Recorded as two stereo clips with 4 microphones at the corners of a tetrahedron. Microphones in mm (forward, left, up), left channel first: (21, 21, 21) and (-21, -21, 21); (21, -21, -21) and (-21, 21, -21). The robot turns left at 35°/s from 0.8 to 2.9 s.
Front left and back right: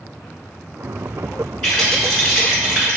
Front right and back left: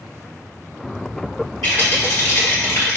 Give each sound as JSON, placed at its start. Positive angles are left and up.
{"t": 1.6, "sound": "a rattle", "azimuth_deg": -30, "distance_m": 1.5}